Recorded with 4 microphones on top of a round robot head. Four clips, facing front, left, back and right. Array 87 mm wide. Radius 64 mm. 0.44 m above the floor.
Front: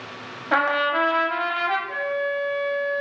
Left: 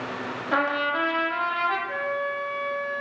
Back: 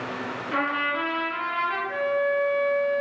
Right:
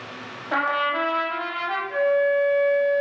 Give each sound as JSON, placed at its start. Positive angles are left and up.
{"t": 0.5, "sound": "a trumpet", "azimuth_deg": -10, "distance_m": 0.8}
{"t": 1.9, "sound": "a flute", "azimuth_deg": 40, "distance_m": 1.5}